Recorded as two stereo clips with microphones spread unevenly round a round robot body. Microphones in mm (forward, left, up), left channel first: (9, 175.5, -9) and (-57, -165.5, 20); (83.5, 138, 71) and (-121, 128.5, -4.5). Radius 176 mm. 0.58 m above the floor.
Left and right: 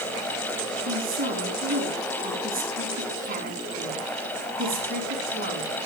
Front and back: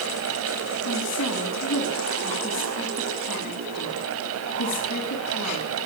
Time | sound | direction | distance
0.8 | a woman speaking | 35° right | 6 m